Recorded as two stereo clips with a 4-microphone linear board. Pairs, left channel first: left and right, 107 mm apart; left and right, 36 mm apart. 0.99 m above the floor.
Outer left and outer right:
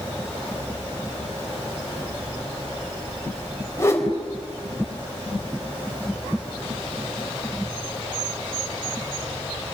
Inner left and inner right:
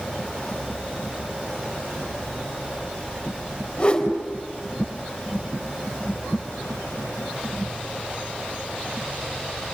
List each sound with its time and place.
3.8 s a whoosh: 25° left (ahead or behind), 3.5 m